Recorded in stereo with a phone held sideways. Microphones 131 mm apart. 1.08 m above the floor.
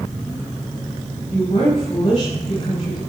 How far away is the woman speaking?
About 6 m.